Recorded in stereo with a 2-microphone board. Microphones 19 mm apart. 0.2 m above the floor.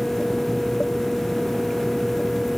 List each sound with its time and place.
Only background noise.